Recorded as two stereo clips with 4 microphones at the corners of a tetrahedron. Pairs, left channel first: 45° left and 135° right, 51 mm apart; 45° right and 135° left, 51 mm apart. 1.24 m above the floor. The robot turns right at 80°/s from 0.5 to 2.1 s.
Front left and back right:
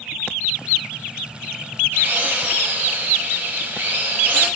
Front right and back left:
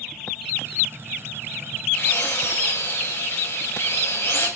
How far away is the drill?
About 7.5 m.